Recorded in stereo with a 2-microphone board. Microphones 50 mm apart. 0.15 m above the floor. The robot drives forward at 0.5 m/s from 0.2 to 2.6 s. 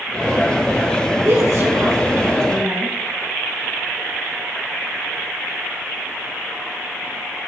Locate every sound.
1.2 s a woman speaking: 55° right (ahead or behind), 3 m; by 3.0 s 50° right (ahead or behind), 3 m